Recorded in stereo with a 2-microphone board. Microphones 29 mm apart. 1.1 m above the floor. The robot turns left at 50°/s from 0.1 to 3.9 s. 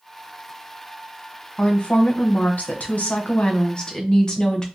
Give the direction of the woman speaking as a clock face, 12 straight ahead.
7 o'clock.